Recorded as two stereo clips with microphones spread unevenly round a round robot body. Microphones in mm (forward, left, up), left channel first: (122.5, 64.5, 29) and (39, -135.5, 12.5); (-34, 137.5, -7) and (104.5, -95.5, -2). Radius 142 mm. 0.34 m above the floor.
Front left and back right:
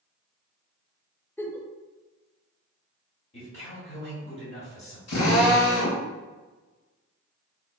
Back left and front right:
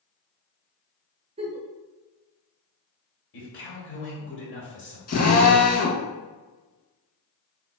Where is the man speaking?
120° left, 1.6 m.